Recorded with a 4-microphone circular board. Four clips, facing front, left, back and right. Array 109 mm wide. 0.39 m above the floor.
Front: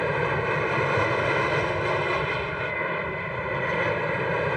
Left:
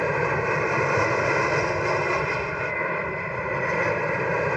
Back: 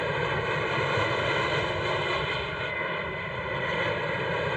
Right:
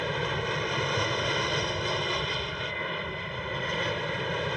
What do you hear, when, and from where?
0.0 s an aircraft: 65° left